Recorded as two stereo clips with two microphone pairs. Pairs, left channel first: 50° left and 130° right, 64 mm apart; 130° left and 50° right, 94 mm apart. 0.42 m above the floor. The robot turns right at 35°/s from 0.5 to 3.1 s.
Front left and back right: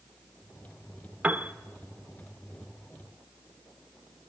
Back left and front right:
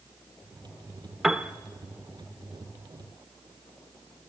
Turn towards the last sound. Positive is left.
turn(degrees=-70)